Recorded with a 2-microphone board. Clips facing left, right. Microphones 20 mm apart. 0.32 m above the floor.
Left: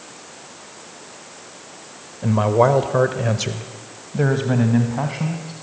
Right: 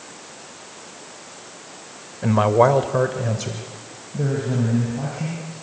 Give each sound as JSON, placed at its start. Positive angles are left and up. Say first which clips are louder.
{"t": 2.2, "sound": "a man speaking", "louder": "right 1 dB", "side_deg": -25, "distance_m": 1.0}